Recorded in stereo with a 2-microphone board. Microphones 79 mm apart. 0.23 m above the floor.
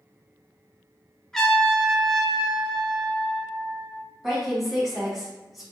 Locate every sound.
1.3 s a trumpet: 10° left (ahead or behind), 0.9 m
4.2 s a woman speaking: centre (ahead or behind), 1.4 m